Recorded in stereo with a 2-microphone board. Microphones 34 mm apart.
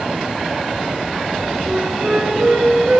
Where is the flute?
55° right (ahead or behind), 3.5 m.